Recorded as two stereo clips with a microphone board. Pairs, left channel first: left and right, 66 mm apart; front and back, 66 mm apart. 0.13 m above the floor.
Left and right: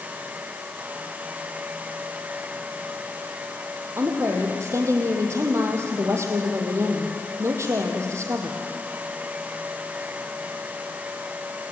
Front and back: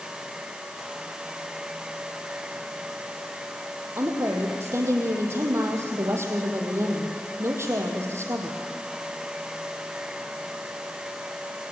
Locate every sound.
4.0 s a woman speaking: 130° right, 4 m